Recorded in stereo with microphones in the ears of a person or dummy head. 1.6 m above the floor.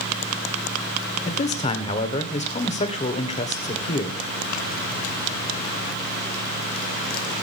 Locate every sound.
1.2 s a man speaking: 35° left (ahead or behind), 1.4 m